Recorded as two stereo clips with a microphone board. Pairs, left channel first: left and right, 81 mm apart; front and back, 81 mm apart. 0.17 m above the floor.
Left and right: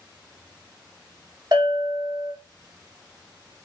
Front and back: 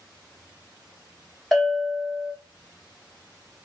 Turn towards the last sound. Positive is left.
turn(degrees=-85)